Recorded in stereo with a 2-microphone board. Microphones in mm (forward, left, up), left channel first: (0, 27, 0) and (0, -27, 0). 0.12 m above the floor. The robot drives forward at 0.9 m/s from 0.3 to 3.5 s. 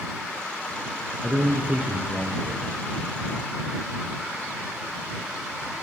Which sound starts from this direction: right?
A man speaking, at 1.2 s.